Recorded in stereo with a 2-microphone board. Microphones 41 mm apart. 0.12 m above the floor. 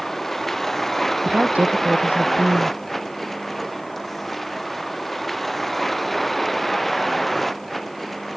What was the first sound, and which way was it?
A vehicle, 5° left (ahead or behind).